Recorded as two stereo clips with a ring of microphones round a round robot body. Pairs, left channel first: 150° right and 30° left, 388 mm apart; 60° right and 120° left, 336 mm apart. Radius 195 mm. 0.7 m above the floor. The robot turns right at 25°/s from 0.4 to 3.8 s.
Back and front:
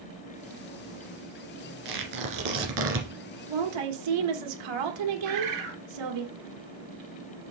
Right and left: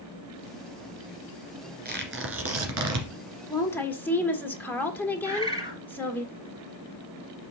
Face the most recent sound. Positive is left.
turn(degrees=40)